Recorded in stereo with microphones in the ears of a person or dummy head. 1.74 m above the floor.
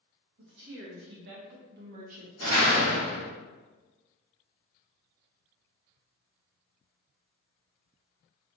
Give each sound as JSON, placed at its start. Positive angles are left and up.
{"t": 0.4, "sound": "a woman speaking", "side_deg": -60, "distance_m": 1.4}
{"t": 2.4, "sound": "a door slam", "side_deg": -75, "distance_m": 1.9}